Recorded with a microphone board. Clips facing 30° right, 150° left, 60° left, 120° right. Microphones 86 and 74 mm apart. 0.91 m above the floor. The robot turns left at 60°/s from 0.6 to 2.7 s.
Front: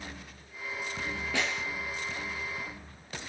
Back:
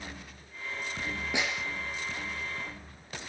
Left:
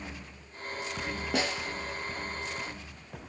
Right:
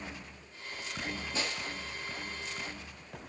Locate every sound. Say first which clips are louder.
1.3 s a snare drum: even, left 8 dB; 80° left, 3.5 m; by 1.6 s 60° left, 3.5 m